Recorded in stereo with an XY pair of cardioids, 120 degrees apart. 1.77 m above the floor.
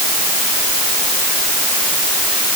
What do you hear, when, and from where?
Only background noise.